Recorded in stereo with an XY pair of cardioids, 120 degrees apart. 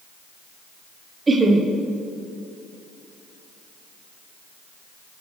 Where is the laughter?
25° right, 1.1 m.